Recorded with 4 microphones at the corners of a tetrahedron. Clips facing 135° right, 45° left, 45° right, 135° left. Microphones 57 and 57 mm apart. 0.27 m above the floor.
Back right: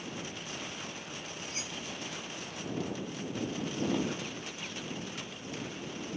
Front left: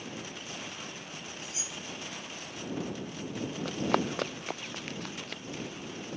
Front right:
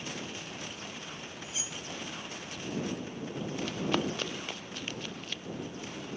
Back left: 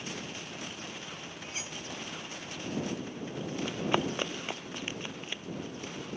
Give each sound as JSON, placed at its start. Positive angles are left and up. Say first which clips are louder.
{"t": 1.4, "sound": "cutlery clinking", "louder": "back right 1 dB, back left 2 dB", "azimuth_deg": 180}
{"t": 3.6, "sound": "running footsteps", "louder": "front left 4 dB, back left 1 dB", "azimuth_deg": 65}